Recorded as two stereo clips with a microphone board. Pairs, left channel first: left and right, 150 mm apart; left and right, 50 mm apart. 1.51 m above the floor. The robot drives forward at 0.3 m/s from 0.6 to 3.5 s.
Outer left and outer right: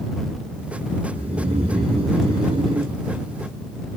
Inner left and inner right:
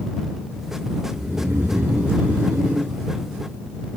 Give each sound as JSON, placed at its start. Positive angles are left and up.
{"t": 1.1, "sound": "snoring", "side_deg": -45, "distance_m": 1.6}